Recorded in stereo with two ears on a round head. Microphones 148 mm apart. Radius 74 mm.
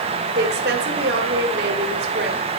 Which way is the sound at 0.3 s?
65° right (ahead or behind).